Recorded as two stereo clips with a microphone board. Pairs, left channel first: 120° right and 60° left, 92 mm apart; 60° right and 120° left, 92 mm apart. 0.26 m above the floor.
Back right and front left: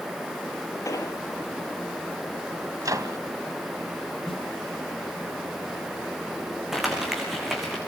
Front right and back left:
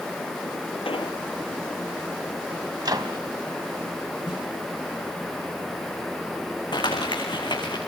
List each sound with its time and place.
0.8 s an explosion: 65° right, 3 m
2.8 s a microwave: 95° left, 1.9 m
4.2 s a snare drum: 30° right, 6.5 m
6.7 s crumpling: 25° right, 6.5 m